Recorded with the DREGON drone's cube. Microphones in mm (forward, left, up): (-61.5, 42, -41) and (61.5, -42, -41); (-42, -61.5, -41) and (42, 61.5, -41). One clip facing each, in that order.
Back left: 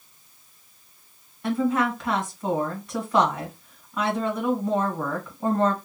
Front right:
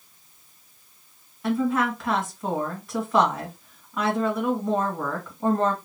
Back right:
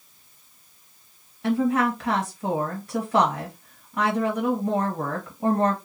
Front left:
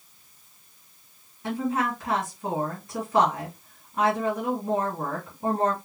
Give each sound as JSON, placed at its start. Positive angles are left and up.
{"t": 1.4, "sound": "a woman speaking", "azimuth_deg": -125, "distance_m": 1.3}